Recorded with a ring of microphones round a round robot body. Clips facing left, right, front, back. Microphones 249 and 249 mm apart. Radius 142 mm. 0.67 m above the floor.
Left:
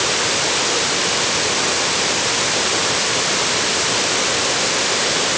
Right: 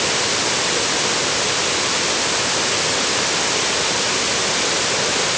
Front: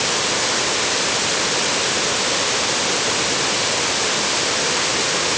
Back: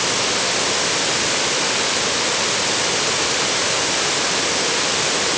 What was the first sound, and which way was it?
Only background noise.